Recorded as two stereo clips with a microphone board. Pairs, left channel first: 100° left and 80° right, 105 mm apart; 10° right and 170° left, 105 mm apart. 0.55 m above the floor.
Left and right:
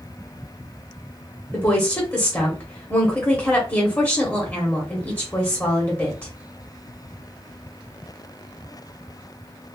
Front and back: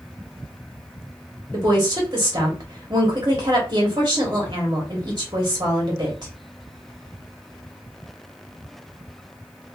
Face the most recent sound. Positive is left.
turn(degrees=155)